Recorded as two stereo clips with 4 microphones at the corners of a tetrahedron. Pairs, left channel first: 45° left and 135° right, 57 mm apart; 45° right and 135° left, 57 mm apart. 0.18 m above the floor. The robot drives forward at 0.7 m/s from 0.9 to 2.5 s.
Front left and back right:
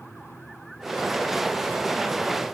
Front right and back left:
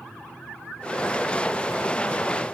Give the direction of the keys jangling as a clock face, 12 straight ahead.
No keys jangling in this recording.